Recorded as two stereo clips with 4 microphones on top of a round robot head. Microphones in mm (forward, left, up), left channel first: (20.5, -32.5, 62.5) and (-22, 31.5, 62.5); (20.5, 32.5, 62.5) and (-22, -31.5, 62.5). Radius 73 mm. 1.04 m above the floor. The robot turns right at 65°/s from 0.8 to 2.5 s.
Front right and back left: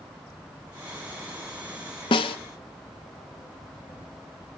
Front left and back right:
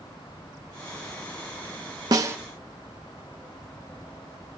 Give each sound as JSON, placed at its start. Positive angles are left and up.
{"t": 2.1, "sound": "a snare drum", "azimuth_deg": -80, "distance_m": 0.5}